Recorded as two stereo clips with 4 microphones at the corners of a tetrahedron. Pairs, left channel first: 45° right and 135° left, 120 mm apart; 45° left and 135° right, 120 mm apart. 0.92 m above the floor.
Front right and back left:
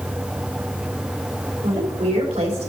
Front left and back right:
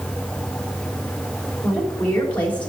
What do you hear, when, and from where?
1.6 s a woman speaking: 120° left, 3 m